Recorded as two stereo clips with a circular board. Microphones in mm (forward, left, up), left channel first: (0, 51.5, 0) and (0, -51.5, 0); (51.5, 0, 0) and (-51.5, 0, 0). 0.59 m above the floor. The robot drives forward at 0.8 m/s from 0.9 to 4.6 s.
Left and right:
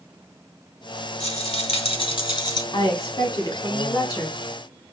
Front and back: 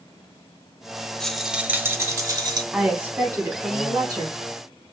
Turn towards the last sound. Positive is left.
turn(degrees=145)